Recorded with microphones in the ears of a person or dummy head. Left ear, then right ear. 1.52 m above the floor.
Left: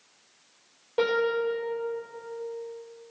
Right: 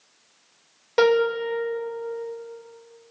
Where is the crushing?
No crushing in this recording.